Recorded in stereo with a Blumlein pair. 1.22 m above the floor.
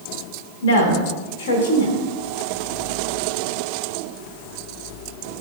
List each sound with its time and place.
0.6 s a woman speaking: 60° left, 1.3 m